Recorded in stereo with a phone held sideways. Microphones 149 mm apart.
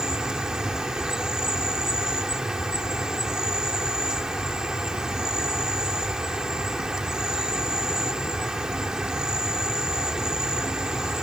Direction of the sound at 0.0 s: 5° right (ahead or behind).